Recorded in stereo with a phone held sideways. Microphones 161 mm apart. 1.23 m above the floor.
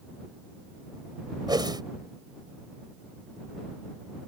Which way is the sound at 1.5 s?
25° right (ahead or behind).